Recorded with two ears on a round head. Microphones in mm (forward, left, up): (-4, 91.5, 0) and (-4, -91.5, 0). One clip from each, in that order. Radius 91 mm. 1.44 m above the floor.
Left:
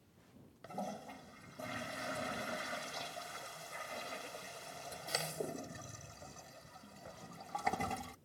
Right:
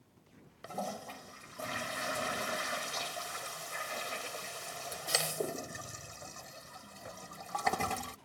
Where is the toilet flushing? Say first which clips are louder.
Right 4 dB; 30° right (ahead or behind).